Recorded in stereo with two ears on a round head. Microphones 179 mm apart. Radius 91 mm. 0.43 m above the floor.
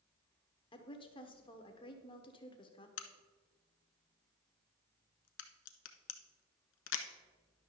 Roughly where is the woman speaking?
Left.